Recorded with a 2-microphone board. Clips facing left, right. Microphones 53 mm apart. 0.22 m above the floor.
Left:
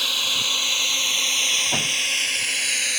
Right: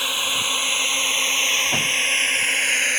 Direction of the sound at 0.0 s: 20° right (ahead or behind).